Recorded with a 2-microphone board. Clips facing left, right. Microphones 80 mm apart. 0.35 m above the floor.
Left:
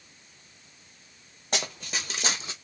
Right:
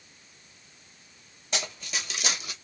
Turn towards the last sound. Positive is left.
turn(degrees=25)  # may be behind; listen again after turning